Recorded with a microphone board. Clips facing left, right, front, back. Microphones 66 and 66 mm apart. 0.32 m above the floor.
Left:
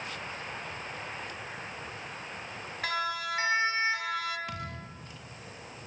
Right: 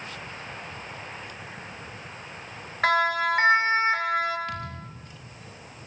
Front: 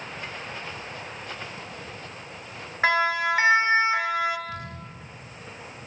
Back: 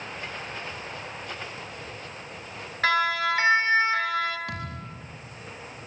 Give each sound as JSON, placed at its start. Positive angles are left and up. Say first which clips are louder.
{"t": 2.8, "sound": "a siren", "louder": "right 10 dB, front 1 dB", "azimuth_deg": -65, "distance_m": 3.5}
{"t": 4.5, "sound": "a thud", "louder": "right 4 dB, back 1 dB", "azimuth_deg": 165, "distance_m": 6.5}